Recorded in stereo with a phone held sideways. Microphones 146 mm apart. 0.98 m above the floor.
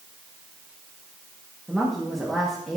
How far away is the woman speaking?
About 1.8 m.